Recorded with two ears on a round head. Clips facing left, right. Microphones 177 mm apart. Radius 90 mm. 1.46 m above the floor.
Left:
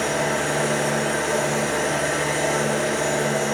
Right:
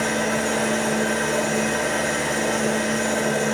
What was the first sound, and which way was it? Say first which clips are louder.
An engine running: even; 45° right (ahead or behind).